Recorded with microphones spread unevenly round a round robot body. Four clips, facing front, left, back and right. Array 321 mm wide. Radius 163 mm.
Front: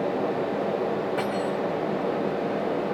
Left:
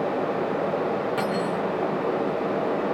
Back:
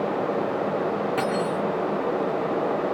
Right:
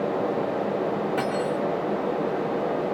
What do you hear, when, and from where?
1.2 s cutlery clinking: 165° left, 2.5 m